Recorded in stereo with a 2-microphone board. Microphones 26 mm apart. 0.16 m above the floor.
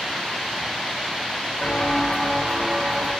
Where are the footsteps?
70° left (ahead or behind), 0.9 m; by 3.1 s 40° right (ahead or behind), 1.6 m.